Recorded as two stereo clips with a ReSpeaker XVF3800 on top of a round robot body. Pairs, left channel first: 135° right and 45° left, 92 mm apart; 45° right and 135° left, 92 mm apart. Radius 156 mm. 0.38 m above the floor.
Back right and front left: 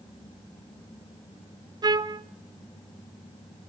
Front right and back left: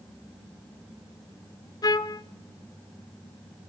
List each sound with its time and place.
1.8 s a trumpet: straight ahead, 0.5 m